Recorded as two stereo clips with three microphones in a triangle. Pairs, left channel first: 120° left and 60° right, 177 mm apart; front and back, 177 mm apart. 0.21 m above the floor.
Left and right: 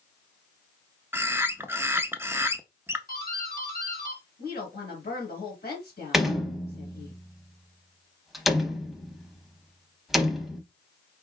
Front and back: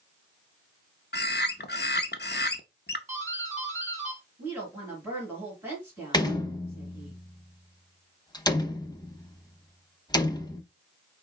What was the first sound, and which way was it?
A bird, 20° left.